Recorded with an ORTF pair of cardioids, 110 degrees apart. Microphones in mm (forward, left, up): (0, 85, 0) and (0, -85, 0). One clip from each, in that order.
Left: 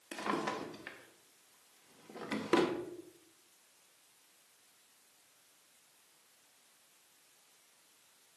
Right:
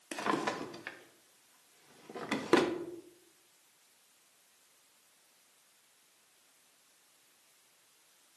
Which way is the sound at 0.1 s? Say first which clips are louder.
Right 3 dB; 25° right.